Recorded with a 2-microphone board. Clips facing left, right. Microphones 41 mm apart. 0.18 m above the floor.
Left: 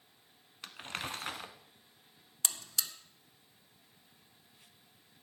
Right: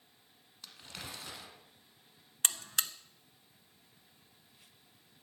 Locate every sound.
0.6 s crumpling: 50° left (ahead or behind), 1.0 m
2.4 s a buzzer: 45° right (ahead or behind), 0.7 m